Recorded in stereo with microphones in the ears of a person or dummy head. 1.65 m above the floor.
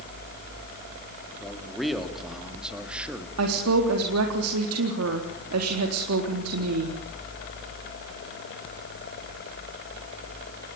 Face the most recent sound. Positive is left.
turn(degrees=-85)